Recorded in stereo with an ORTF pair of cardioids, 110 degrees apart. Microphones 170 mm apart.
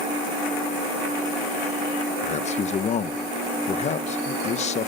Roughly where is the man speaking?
Ahead left.